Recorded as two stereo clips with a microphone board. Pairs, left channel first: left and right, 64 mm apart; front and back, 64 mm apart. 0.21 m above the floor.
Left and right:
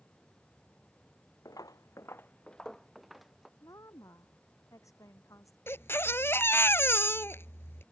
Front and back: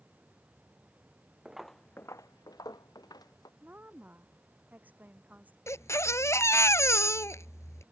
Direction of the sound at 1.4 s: 105° left.